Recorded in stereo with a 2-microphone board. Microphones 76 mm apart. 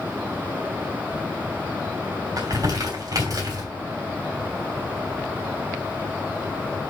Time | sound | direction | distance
2.4 | crumpling | 55° right (ahead or behind) | 3 m